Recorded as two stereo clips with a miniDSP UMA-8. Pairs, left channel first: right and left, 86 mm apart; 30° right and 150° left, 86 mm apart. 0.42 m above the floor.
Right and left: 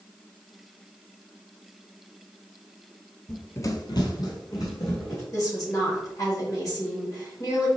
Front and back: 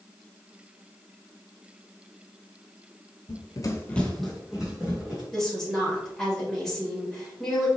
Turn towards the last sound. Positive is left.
turn(degrees=-110)